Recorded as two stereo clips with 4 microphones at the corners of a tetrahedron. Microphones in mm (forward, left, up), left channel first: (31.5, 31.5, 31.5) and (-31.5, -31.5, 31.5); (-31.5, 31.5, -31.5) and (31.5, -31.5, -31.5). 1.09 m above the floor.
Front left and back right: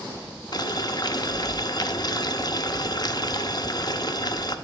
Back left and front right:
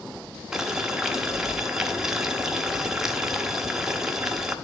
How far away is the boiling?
About 0.6 m.